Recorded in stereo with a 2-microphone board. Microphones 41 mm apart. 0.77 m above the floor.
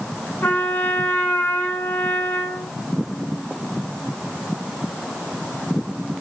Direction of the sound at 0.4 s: 65° left (ahead or behind).